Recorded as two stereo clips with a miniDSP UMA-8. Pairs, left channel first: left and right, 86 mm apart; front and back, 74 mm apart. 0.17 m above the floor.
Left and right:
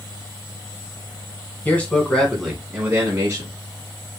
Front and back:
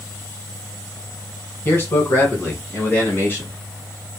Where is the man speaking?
30° left, 1.6 m; by 3.6 s 50° right, 1.7 m.